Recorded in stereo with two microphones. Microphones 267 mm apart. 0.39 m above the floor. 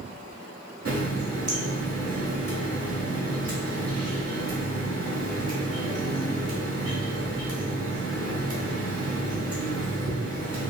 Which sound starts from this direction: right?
A running tap, at 0.8 s.